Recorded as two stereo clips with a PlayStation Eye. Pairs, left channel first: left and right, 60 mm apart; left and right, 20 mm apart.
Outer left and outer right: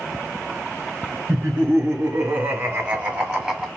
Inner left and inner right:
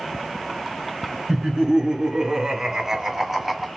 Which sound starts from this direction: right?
Laughter, at 1.3 s.